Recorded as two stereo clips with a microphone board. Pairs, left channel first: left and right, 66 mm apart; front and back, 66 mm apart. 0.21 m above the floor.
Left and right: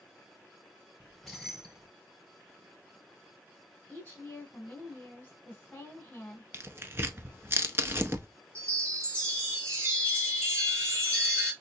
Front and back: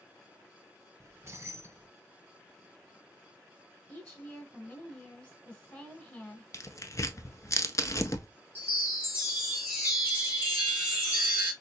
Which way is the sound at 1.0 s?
175° left.